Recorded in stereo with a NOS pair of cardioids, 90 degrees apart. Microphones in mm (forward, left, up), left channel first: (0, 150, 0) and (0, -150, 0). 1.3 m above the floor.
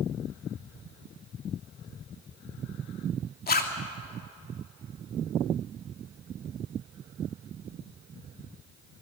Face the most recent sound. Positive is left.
turn(degrees=30)